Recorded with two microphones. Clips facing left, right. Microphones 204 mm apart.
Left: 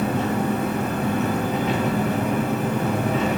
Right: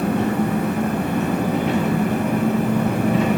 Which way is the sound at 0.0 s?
60° right (ahead or behind).